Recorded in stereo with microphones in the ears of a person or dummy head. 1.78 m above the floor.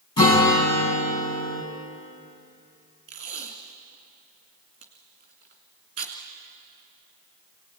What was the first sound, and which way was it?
A guitar, 25° left (ahead or behind).